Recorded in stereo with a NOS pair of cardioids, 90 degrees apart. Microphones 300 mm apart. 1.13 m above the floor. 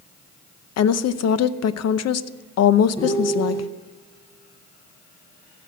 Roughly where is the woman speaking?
Ahead left.